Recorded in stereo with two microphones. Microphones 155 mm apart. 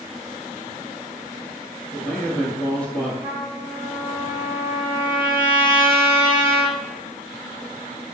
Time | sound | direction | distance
1.9 | a man speaking | 5° left (ahead or behind) | 1.5 m
3.2 | a trumpet | 15° right (ahead or behind) | 1.2 m